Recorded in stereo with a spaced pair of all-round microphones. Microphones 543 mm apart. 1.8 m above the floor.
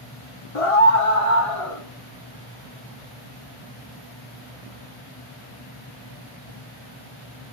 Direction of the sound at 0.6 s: 75° left (ahead or behind).